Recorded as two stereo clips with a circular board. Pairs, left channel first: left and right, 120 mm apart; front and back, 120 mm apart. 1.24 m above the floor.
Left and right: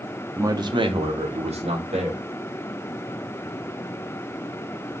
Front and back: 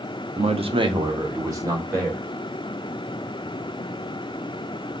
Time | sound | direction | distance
0.4 | a man speaking | 160° right | 0.6 m